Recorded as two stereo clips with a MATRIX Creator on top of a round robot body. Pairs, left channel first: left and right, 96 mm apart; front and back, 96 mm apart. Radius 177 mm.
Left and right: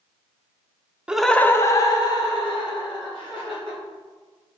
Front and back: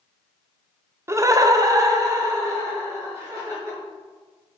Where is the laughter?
160° right, 0.5 m; by 3.8 s 120° left, 1.9 m.